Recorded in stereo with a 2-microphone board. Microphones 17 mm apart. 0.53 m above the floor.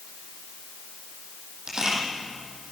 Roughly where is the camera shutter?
Right.